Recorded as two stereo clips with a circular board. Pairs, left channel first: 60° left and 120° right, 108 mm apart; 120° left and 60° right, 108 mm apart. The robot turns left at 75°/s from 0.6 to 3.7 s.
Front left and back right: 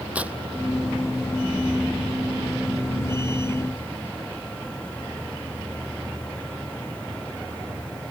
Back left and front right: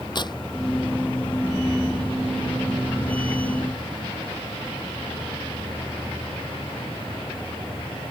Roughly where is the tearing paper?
Behind.